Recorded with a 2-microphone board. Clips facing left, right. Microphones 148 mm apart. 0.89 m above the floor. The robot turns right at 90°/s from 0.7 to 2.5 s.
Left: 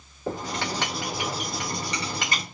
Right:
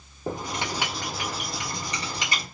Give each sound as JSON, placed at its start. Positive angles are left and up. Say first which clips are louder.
{"t": 0.3, "sound": "writing", "louder": "left 1 dB", "azimuth_deg": -20, "distance_m": 1.9}